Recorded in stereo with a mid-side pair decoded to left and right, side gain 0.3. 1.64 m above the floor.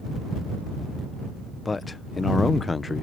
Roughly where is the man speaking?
Ahead left.